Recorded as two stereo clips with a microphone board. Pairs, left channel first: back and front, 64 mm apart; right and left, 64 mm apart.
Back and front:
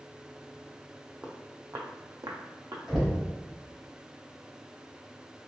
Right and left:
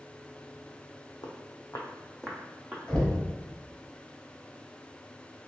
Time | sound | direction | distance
1.2 | footsteps | 75° right | 0.8 m
2.9 | knocking | 55° right | 1.1 m